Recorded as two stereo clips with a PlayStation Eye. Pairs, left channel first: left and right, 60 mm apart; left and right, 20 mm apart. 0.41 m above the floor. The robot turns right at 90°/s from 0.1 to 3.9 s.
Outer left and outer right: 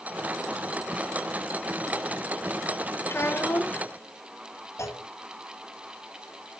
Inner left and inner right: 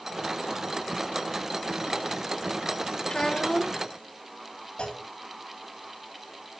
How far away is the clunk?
About 2.5 m.